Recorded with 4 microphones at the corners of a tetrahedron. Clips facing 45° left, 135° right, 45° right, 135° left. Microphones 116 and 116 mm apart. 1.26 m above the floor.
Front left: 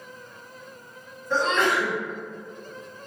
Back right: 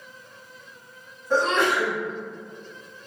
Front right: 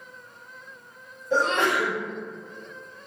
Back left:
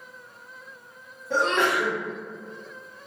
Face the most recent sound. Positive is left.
turn(degrees=145)